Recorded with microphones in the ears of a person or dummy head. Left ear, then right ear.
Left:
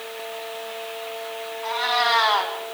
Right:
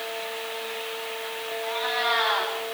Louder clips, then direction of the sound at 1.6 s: Left 5 dB; 70° left (ahead or behind).